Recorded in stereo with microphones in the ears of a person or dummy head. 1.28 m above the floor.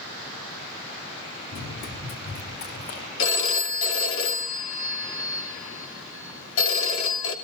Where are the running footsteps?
65° left (ahead or behind), 4 m.